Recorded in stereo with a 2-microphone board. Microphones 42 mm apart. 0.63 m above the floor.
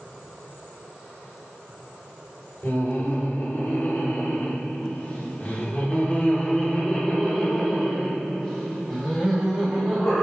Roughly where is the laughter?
Left.